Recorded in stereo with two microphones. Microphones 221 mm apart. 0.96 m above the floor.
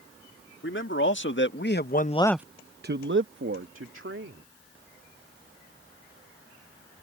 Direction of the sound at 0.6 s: 60° left (ahead or behind).